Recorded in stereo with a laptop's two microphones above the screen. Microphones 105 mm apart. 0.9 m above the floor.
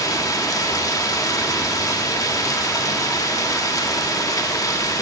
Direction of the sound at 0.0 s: 35° left (ahead or behind).